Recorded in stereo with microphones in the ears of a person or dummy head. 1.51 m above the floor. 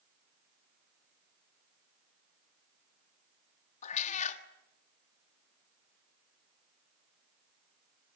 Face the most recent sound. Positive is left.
turn(degrees=40)  # may be behind; listen again after turning